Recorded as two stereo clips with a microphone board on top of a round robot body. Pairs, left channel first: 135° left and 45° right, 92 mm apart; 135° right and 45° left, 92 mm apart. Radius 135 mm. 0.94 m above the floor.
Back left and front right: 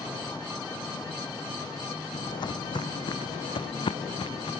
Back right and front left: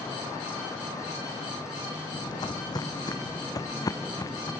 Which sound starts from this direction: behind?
Footsteps, at 2.1 s.